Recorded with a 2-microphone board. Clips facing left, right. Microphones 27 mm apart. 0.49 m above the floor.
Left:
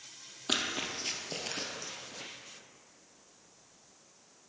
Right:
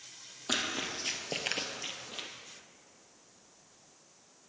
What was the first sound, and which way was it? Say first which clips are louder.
Running footsteps: left 1 dB; 15° left (ahead or behind).